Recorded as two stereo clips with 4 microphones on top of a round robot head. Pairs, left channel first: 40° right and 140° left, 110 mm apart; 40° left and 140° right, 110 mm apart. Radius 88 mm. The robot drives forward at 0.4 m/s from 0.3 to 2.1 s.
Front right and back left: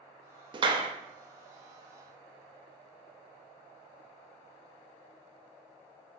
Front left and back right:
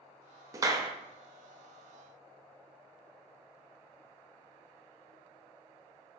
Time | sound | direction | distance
0.5 | a clap | 170° left | 0.5 m